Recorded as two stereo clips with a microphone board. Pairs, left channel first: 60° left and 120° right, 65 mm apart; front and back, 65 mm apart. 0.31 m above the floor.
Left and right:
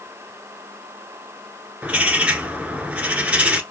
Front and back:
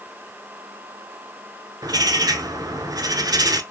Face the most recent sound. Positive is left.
turn(degrees=170)